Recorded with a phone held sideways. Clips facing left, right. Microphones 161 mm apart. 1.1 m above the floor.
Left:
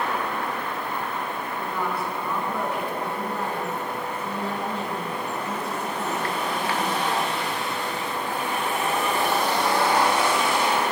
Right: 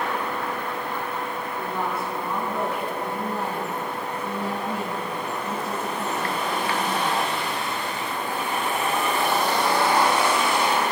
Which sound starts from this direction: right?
A woman speaking, at 1.6 s.